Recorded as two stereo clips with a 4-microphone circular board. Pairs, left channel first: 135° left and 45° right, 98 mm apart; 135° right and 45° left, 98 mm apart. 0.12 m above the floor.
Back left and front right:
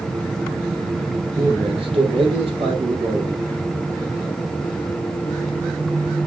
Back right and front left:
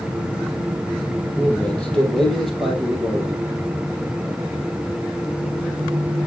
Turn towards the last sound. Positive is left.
turn(degrees=-30)